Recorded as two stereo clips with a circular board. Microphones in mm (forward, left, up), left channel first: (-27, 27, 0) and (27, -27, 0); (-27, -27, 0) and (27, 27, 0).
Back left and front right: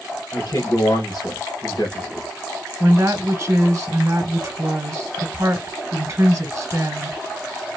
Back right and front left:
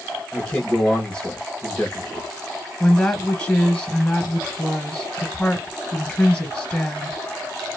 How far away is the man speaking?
About 1.5 m.